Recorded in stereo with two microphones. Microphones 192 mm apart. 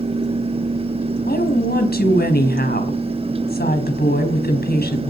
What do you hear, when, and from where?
1.3 s a woman speaking: 55° left (ahead or behind), 4 m